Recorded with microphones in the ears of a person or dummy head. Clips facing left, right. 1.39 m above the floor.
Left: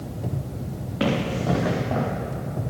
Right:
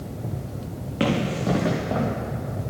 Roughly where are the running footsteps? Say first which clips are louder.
Right 1 dB; right.